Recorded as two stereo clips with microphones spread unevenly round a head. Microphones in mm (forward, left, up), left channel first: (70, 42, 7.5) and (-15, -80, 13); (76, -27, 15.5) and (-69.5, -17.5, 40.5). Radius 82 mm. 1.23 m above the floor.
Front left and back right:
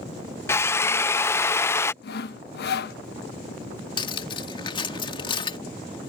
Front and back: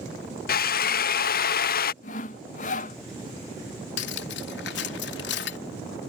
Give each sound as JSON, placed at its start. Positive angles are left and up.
{"t": 0.5, "sound": "a drill", "azimuth_deg": -20}
{"t": 2.0, "sound": "sawing", "azimuth_deg": 40}
{"t": 4.0, "sound": "cutlery clinking", "azimuth_deg": -5}